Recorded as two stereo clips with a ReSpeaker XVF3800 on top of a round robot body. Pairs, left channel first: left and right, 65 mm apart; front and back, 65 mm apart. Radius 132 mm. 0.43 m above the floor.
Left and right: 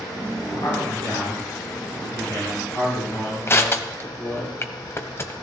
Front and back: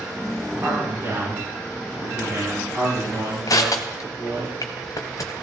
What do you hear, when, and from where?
0.6 s a man speaking: 120° left, 6 m; by 4.5 s 135° left, 7 m
3.5 s crushing: 35° left, 1.0 m